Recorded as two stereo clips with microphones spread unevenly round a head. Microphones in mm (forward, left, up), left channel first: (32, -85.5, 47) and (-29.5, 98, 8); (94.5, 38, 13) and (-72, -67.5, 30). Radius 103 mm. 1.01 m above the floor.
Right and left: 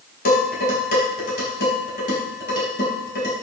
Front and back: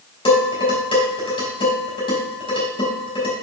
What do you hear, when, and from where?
0.2 s dishes clattering: 30° right, 4.5 m